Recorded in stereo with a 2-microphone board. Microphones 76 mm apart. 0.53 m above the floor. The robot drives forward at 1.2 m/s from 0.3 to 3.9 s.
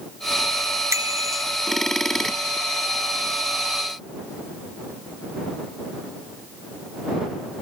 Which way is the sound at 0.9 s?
40° right (ahead or behind).